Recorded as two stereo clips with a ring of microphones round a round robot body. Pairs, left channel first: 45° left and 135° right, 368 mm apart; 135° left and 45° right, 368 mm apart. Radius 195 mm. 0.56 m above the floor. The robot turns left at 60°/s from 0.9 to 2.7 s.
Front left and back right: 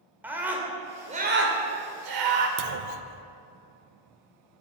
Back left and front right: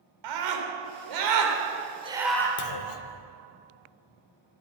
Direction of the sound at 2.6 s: 175° right.